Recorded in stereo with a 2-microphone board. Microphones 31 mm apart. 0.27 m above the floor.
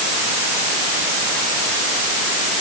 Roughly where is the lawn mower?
No lawn mower in this recording.